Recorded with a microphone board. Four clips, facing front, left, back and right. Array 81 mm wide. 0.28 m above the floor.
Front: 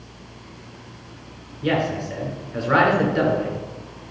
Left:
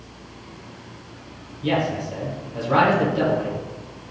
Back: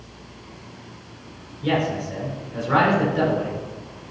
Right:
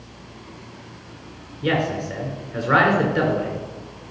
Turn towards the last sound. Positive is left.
turn(degrees=-65)